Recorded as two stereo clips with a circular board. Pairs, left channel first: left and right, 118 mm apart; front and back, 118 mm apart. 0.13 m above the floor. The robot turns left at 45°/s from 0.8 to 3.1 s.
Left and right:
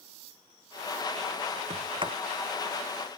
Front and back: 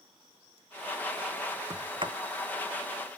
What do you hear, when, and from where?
1.7 s a sliding door: 120° right; by 2.1 s 140° right